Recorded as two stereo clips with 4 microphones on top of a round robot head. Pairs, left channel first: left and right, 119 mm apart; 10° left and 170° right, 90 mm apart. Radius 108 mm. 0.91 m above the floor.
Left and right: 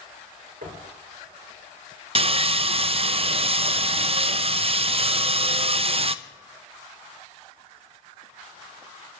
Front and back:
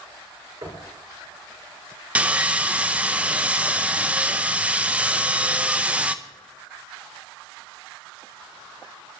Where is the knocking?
115° right, 3.5 m.